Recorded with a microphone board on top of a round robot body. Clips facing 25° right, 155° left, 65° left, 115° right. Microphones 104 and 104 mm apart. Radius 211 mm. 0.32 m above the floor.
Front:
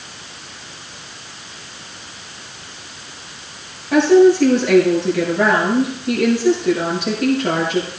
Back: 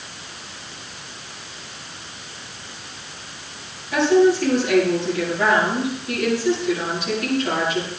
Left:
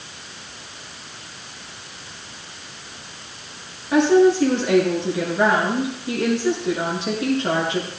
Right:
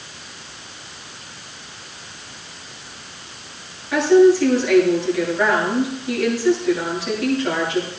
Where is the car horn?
I don't hear a car horn.